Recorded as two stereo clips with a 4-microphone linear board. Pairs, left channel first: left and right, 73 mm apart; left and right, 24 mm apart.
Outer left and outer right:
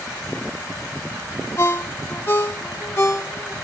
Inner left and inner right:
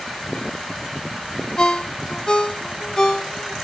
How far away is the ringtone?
About 1.4 m.